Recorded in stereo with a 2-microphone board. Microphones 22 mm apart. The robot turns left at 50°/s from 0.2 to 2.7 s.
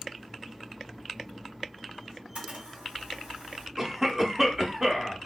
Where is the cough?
20° right (ahead or behind), 0.8 m.